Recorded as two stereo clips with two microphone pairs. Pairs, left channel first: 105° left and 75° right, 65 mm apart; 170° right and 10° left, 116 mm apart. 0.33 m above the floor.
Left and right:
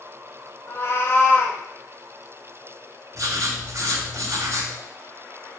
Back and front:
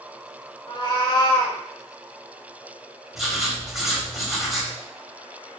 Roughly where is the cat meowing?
Behind left.